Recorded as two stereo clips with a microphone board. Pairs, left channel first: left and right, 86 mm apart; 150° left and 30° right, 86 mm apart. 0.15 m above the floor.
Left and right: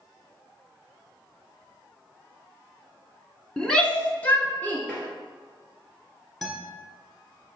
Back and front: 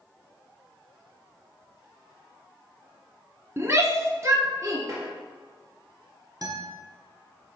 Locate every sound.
3.6 s a shout: 10° left, 1.3 m; by 4.8 s 20° left, 2 m
4.9 s tapping: 15° left, 2.5 m
6.4 s a guitar: 5° left, 1.5 m